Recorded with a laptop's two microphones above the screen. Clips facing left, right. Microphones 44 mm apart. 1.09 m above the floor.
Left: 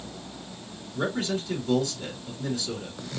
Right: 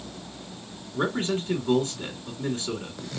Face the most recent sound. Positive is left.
turn(degrees=-35)  # may be behind; listen again after turning